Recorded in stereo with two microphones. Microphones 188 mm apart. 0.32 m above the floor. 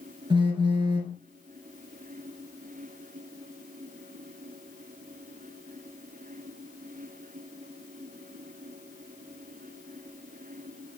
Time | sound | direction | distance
0.3 | a phone buzzing | 25° right (ahead or behind) | 1.9 m